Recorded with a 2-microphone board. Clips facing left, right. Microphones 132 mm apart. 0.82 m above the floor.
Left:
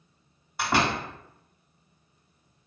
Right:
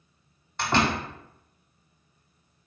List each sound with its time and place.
0.6 s a door slam: 5° left (ahead or behind), 2 m